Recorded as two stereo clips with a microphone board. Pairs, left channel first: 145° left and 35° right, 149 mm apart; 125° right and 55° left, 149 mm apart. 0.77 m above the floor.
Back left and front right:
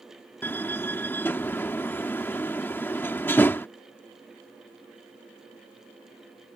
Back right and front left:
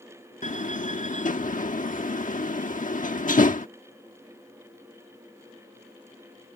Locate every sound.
0.4 s a door slam: 140° right